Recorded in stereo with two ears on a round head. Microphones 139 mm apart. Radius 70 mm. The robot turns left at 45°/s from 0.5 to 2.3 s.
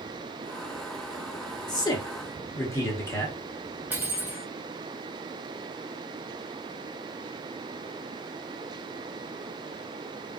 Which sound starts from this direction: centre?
Cutlery clinking, at 3.9 s.